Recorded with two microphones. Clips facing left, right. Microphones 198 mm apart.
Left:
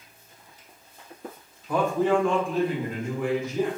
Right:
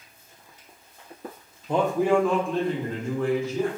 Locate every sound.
1.7 s a man speaking: 25° right (ahead or behind), 0.5 m; by 3.7 s 20° left (ahead or behind), 1.3 m